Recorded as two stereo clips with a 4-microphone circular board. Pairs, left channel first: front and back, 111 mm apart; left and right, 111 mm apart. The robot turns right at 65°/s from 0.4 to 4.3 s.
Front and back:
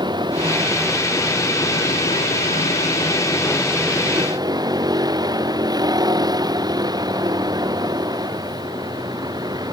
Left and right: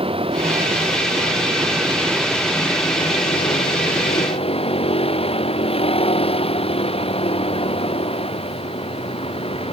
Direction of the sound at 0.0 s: 130° right.